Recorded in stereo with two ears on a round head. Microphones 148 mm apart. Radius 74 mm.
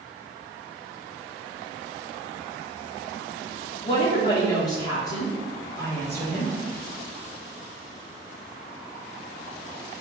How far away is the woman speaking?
About 1.4 m.